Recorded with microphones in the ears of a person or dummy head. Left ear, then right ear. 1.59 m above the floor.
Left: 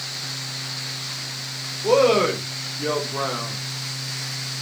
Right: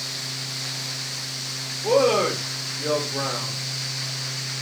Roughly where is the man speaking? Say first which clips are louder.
Left 2 dB; centre.